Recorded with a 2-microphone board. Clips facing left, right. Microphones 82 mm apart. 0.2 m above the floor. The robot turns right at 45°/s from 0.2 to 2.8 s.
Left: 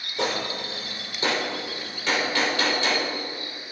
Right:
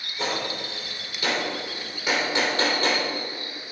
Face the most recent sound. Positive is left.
turn(degrees=-40)  # may be behind; listen again after turning